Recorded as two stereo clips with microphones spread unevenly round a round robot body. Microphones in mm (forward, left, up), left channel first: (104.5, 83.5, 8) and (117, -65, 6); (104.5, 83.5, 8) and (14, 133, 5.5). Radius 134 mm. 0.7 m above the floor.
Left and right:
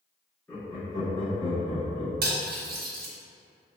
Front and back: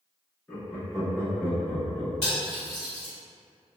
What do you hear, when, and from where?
0.5 s laughter: 30° left, 0.9 m; by 2.1 s 85° left, 1.3 m
2.2 s cutlery clinking: 80° right, 0.7 m